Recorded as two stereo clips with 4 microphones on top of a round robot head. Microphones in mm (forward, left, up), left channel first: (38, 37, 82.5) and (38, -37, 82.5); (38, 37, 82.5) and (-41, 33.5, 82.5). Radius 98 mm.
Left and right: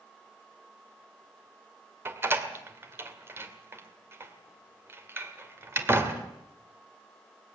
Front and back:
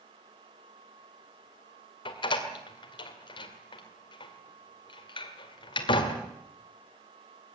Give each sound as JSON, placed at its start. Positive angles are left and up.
{"t": 2.0, "sound": "a door slam", "azimuth_deg": -30, "distance_m": 2.0}